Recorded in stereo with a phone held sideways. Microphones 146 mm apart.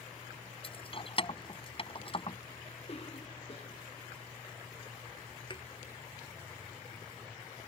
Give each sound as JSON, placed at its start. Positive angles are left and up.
{"t": 0.6, "sound": "keys jangling", "side_deg": 40}
{"t": 2.9, "sound": "a cough", "side_deg": 45}
{"t": 5.5, "sound": "a thud", "side_deg": 35}